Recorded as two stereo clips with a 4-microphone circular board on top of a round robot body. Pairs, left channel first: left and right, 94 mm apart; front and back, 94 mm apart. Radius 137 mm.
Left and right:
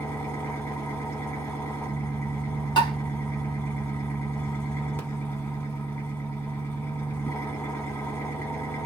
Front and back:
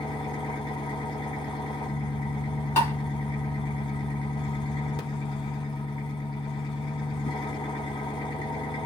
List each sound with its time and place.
0.0 s an engine running: 25° left, 1.8 m
2.8 s tapping: 60° left, 1.8 m